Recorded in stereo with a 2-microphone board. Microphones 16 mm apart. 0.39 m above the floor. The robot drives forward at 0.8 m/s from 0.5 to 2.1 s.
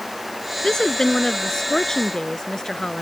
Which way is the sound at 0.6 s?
60° left (ahead or behind).